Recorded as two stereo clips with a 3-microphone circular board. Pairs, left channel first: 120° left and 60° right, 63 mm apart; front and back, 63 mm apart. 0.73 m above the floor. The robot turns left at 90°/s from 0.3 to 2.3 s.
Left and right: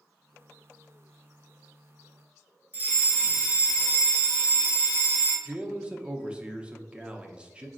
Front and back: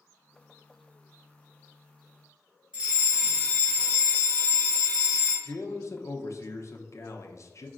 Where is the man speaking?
10° left, 0.6 m.